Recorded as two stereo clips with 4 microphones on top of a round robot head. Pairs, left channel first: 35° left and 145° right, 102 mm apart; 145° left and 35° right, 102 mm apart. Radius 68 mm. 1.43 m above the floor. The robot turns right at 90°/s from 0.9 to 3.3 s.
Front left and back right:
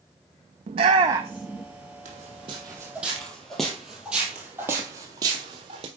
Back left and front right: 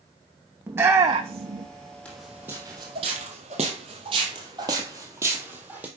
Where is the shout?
105° right, 0.6 m; by 1.7 s 40° right, 0.6 m.